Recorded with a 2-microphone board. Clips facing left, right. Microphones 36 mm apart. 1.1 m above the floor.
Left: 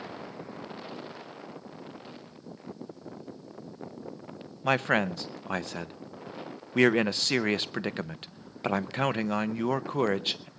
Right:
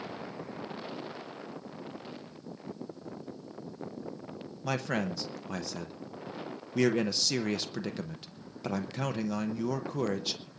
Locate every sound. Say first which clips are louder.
4.6 s a man speaking: left 7 dB; 40° left (ahead or behind), 0.8 m